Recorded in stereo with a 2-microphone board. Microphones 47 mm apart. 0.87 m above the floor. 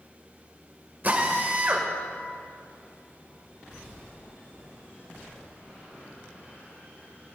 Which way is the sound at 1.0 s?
45° right (ahead or behind).